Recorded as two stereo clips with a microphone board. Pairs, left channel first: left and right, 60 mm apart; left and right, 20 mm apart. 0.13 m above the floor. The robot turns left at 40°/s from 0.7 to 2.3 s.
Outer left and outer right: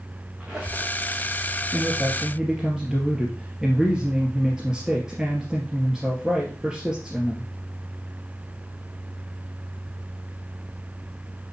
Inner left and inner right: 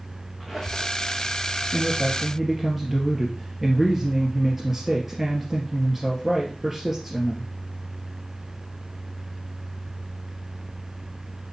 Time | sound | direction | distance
0.4 | a squeak | 10° right (ahead or behind) | 3 m
1.7 | a man speaking | 35° right (ahead or behind) | 2.5 m